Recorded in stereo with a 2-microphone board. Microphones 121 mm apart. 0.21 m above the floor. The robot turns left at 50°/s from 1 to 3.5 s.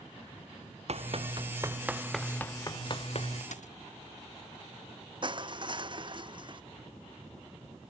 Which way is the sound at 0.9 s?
60° right (ahead or behind).